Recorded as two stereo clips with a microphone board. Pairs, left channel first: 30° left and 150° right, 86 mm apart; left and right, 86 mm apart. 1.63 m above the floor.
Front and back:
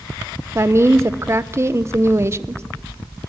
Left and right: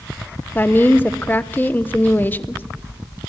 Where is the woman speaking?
155° left, 0.9 m.